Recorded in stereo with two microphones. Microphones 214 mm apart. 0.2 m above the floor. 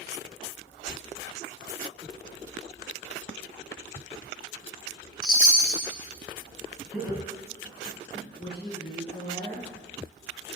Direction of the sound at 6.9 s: 5° right (ahead or behind).